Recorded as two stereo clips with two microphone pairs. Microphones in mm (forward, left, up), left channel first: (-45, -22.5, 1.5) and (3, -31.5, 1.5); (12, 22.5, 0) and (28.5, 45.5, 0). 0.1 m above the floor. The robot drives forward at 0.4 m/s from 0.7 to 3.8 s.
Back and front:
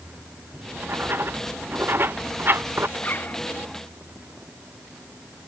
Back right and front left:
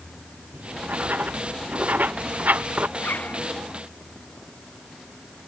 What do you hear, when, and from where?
0.5 s writing: 30° left
3.0 s a zipper: 135° right